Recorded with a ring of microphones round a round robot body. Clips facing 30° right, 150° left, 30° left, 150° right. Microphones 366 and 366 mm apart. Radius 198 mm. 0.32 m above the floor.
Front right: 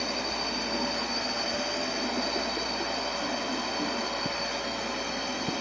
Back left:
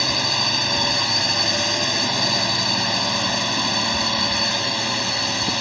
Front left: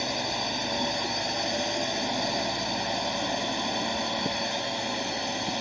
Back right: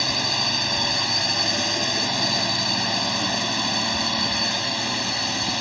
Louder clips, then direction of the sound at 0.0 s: Back left 5 dB, back right 2 dB; 155° left.